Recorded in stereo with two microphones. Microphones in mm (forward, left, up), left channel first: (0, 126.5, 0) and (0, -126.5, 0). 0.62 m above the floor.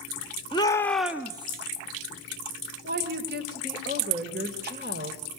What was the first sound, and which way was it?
A shout, 20° left (ahead or behind).